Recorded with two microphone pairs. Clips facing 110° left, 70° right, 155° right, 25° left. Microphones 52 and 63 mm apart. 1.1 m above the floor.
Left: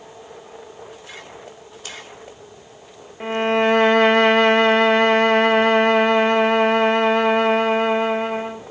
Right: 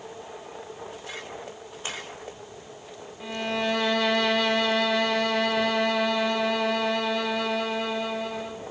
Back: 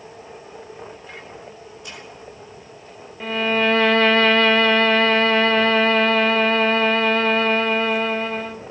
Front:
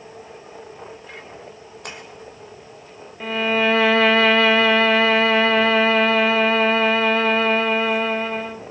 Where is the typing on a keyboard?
No typing on a keyboard in this recording.